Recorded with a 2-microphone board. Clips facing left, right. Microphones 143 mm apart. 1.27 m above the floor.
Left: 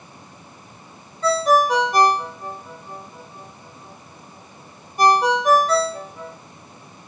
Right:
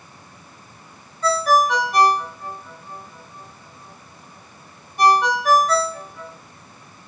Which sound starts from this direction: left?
A ringtone, at 1.2 s.